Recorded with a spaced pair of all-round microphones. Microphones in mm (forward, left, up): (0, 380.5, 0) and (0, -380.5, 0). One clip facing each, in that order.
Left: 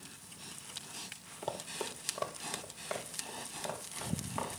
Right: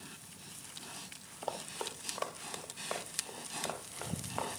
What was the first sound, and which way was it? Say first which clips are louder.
Running footsteps: left 1 dB; 55° left (ahead or behind).